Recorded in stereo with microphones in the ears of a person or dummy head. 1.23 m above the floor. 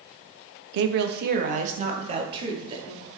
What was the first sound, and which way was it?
A woman speaking, 70° right (ahead or behind).